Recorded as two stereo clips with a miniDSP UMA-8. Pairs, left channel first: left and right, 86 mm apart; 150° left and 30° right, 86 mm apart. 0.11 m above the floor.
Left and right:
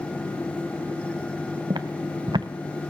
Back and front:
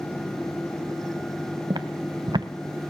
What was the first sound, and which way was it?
Footsteps, 60° right.